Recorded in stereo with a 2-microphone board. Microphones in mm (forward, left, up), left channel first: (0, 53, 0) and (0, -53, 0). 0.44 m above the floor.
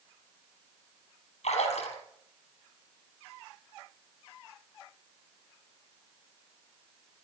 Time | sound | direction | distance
1.4 | a splash | 65° left (ahead or behind) | 4.5 m